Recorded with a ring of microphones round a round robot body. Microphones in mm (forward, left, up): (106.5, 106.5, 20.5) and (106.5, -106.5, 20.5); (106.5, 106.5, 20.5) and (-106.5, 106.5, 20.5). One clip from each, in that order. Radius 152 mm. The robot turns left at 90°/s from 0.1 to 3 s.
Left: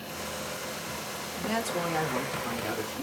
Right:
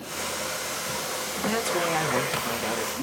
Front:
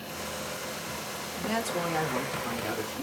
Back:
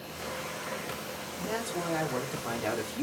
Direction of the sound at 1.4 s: 10° right.